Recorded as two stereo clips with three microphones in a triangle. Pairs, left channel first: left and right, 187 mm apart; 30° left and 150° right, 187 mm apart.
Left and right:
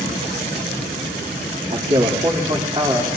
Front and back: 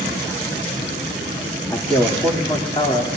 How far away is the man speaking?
About 2 m.